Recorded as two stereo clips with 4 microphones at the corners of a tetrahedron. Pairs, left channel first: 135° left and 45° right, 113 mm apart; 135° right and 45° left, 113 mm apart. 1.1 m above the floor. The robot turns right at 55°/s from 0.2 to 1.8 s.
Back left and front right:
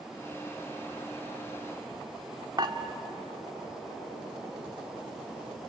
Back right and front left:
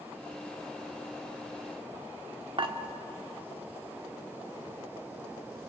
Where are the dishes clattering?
5° left, 1.6 m.